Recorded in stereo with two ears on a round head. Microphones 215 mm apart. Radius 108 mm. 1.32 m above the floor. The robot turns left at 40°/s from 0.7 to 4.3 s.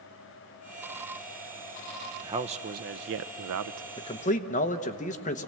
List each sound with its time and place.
2.2 s a man speaking: 15° right, 0.6 m; by 3.9 s 80° right, 0.6 m
4.0 s a man speaking: 20° left (ahead or behind), 1.0 m; by 5.5 s 35° left (ahead or behind), 1.0 m